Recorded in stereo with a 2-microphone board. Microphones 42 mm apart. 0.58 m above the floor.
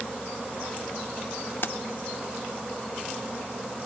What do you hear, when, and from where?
1.6 s keys jangling: 65° left (ahead or behind), 0.7 m